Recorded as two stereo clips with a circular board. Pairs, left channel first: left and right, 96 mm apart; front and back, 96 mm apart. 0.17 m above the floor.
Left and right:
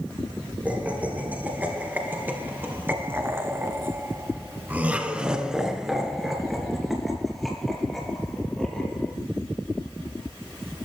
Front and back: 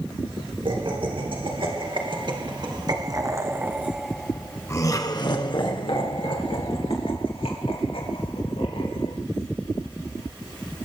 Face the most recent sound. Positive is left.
turn(degrees=5)